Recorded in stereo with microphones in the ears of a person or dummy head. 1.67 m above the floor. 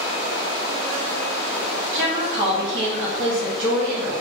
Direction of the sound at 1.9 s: 70° right (ahead or behind).